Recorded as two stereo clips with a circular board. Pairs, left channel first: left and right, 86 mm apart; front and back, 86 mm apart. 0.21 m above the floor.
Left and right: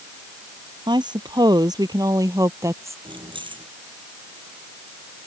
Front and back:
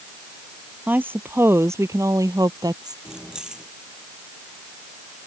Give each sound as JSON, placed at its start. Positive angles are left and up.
{"t": 0.9, "sound": "a woman speaking", "azimuth_deg": -110}
{"t": 3.0, "sound": "keys jangling", "azimuth_deg": -100}